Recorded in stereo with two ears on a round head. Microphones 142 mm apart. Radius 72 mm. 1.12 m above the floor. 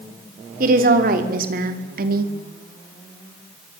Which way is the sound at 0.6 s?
60° right (ahead or behind).